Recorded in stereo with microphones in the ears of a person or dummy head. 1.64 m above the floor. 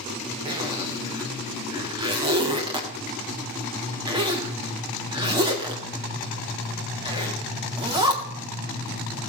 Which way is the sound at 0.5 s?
20° right (ahead or behind).